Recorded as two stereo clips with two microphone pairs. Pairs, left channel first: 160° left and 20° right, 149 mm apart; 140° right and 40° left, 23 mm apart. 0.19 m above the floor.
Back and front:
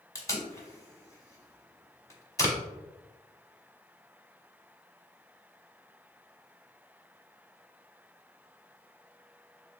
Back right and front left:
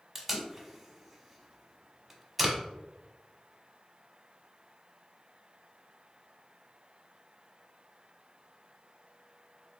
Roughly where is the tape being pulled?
Behind left.